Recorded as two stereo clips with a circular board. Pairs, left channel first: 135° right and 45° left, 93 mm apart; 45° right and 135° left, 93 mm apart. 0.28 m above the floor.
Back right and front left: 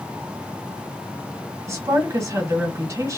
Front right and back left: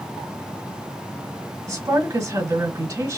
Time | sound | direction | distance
1.7 | a woman speaking | 95° left | 1.9 m